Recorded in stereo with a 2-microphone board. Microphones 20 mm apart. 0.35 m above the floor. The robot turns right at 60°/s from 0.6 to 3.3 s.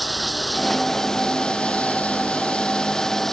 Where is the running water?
Straight ahead; by 3.3 s 160° left.